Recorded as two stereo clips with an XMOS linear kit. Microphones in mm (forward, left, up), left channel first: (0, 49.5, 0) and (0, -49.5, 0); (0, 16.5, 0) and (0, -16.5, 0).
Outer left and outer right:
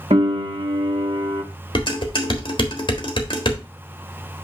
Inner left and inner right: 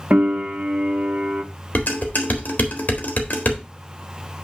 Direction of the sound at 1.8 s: 55° left (ahead or behind).